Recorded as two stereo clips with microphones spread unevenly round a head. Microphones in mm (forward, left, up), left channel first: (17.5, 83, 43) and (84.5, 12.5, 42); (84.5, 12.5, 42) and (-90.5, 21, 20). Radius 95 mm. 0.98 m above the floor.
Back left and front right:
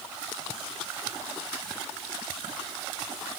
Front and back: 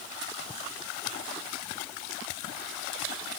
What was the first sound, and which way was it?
Only background noise.